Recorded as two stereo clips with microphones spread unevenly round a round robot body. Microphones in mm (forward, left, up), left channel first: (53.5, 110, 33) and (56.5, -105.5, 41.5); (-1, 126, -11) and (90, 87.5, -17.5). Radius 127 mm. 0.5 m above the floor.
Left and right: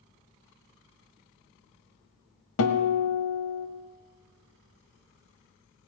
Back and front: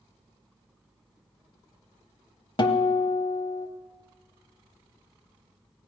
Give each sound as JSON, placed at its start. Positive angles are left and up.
{"t": 2.6, "sound": "a guitar", "azimuth_deg": 115, "distance_m": 1.1}